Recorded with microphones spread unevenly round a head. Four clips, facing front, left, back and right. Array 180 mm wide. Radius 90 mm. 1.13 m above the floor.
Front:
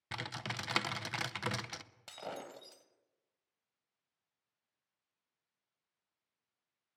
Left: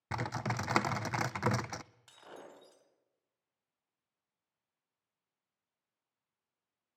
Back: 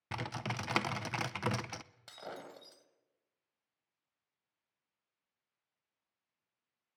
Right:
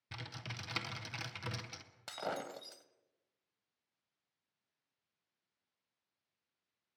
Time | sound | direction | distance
0.1 | typing on a keyboard | 105° left | 0.6 m
2.1 | breaking glass | 80° right | 1.9 m